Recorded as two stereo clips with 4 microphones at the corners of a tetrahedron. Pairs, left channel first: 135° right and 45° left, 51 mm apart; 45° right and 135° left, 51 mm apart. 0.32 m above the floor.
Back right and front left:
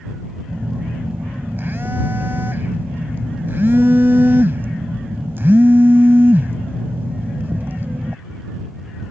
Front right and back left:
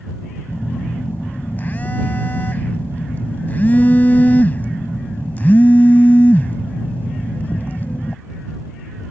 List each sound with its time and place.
0.5 s a phone buzzing: 5° left